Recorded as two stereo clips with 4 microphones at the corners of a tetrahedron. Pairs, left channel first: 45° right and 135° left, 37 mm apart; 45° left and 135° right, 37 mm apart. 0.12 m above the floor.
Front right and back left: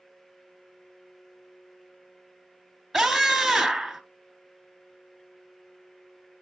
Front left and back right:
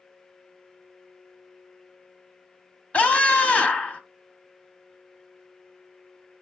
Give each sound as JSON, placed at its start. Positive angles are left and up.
{"t": 2.9, "sound": "a scream", "azimuth_deg": 50, "distance_m": 1.3}